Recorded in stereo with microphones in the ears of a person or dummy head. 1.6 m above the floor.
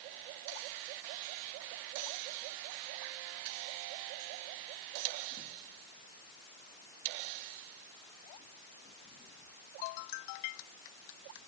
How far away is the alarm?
No alarm in this recording.